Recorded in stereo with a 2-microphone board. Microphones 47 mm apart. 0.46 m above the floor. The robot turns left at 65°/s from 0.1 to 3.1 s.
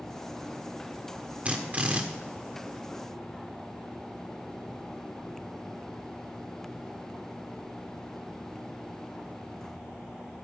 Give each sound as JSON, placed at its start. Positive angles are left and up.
{"t": 1.4, "sound": "a drill", "azimuth_deg": -65, "distance_m": 1.3}